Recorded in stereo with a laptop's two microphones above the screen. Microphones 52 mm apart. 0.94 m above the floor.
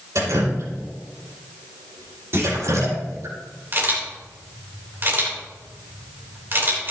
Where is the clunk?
55° right (ahead or behind), 3 m.